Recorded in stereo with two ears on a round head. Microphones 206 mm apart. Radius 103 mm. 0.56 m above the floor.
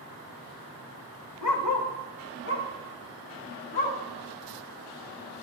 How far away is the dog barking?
About 0.9 m.